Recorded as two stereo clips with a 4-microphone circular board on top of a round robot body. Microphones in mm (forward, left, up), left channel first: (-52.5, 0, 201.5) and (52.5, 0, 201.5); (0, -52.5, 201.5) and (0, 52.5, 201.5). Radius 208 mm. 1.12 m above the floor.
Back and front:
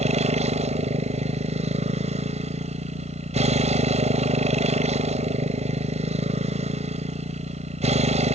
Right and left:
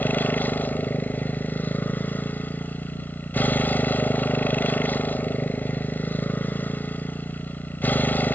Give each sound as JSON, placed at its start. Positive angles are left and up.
{"t": 0.0, "sound": "a motorcycle", "azimuth_deg": -15}